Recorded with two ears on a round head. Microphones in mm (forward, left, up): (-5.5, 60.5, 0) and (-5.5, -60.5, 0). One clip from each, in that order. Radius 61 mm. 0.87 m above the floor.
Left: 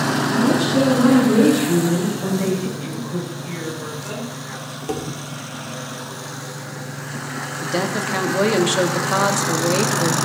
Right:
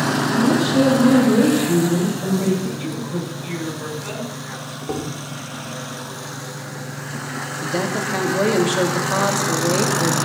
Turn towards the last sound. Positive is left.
turn(degrees=20)  # may be behind; listen again after turning